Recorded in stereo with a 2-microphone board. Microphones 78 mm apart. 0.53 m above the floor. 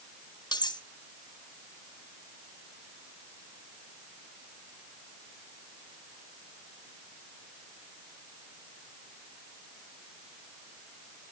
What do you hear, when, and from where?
0.5 s cutlery clinking: 70° left (ahead or behind), 1.2 m